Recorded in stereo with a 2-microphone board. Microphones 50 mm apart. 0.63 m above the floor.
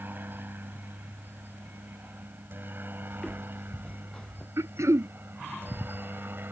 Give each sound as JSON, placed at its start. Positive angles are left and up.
{"t": 0.0, "sound": "a helicopter", "side_deg": -45}
{"t": 3.1, "sound": "footsteps", "side_deg": 10}
{"t": 4.6, "sound": "throat clearing", "side_deg": -85}